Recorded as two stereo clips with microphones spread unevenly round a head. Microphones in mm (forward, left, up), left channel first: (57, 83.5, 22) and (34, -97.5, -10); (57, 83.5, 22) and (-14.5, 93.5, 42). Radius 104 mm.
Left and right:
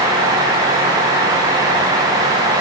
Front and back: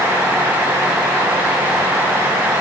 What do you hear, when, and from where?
Only background noise.